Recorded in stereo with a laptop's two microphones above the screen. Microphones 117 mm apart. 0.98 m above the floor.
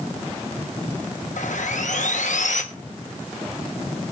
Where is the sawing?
80° left, 1.0 m.